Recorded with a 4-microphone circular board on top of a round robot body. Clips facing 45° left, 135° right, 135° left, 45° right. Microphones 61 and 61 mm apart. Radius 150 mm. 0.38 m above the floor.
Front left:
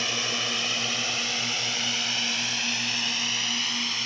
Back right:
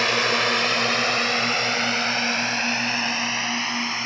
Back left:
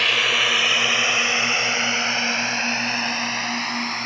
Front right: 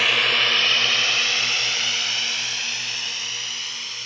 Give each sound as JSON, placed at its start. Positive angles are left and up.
{"t": 0.0, "sound": "a drone", "azimuth_deg": -135}